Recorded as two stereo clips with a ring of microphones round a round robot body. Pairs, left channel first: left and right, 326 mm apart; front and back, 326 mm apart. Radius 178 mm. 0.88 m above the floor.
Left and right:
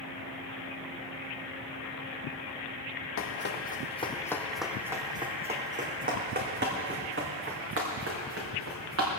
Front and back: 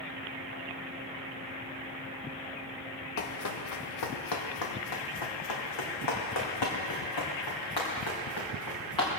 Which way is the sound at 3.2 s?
45° left.